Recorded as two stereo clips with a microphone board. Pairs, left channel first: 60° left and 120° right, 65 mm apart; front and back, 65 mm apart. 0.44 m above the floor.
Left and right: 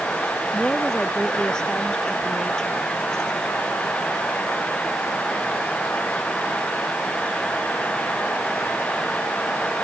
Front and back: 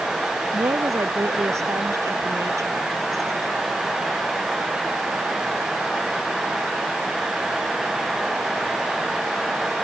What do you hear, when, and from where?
0.5 s a woman speaking: 140° left